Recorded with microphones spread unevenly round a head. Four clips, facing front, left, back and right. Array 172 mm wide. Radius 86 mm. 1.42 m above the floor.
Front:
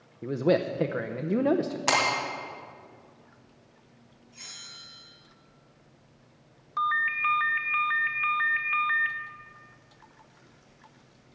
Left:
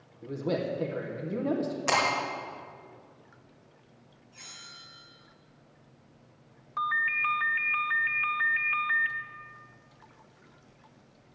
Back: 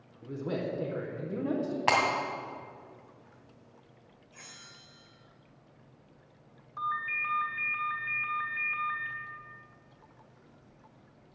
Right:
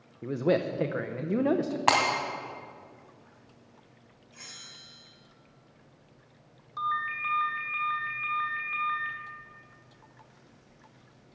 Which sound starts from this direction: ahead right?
A man speaking, at 0.2 s.